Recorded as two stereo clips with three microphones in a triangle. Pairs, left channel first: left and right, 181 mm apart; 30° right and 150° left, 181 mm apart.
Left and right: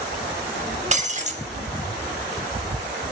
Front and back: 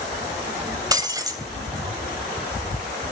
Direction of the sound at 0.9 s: 140° right.